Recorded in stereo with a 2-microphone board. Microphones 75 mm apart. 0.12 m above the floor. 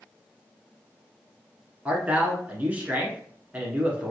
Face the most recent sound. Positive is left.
turn(degrees=-20)  # may be behind; listen again after turning